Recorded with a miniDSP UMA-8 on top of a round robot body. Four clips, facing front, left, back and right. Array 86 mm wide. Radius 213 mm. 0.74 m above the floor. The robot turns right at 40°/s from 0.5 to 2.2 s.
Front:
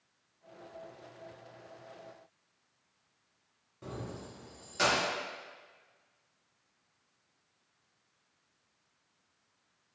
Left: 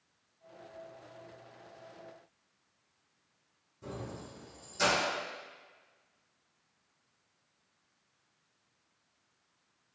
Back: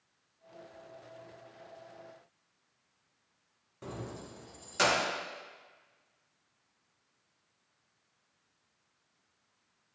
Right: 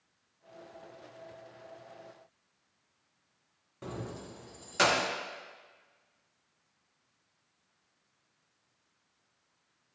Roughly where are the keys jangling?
Behind right.